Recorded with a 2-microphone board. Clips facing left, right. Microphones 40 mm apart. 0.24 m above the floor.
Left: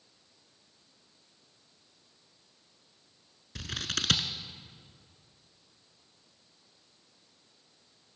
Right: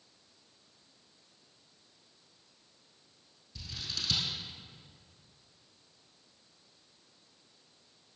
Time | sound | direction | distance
3.5 | scissors | 75° left (ahead or behind) | 0.9 m